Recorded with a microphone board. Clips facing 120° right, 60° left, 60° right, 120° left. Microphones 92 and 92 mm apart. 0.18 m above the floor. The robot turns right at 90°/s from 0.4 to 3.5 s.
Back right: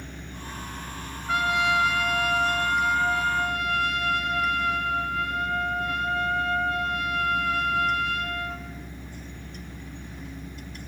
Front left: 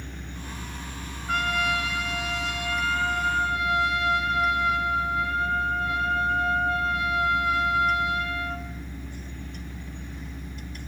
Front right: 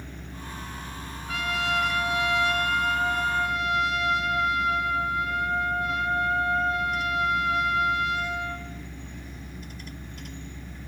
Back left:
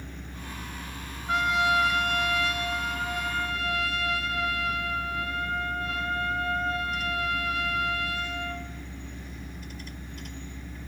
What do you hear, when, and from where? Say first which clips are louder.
1.3 s a trumpet: back right 2 dB, back left 4 dB; 155° left, 1.4 m; by 8.7 s 5° right, 1.4 m